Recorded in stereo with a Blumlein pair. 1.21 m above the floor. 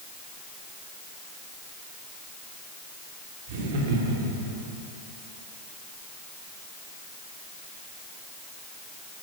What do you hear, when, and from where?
3.5 s laughter: 50° right, 2.5 m; by 4.6 s 55° right, 3.5 m